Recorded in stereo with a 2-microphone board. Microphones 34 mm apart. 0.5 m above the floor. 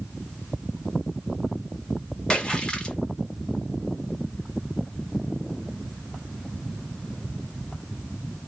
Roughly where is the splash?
Left.